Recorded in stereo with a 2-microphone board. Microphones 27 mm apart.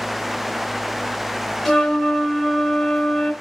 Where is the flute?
10° left (ahead or behind), 1.3 m.